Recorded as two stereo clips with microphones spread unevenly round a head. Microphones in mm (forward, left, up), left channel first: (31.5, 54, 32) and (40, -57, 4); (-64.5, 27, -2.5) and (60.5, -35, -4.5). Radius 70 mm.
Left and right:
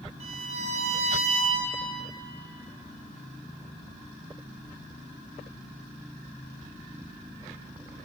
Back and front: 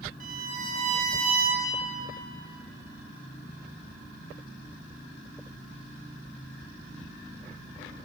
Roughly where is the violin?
Ahead right.